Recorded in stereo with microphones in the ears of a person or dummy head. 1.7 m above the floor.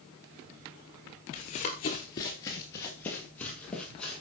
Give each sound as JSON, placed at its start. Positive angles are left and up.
{"t": 1.3, "sound": "running footsteps", "side_deg": 25, "distance_m": 1.8}